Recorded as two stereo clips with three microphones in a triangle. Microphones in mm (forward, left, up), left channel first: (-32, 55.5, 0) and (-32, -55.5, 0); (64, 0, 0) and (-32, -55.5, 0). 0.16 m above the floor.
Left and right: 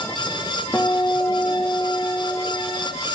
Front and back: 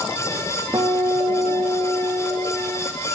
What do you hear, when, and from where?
0.7 s a guitar: 155° left, 6.5 m